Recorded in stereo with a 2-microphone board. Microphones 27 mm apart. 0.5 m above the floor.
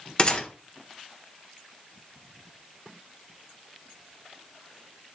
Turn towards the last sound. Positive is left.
turn(degrees=35)  # may be behind; listen again after turning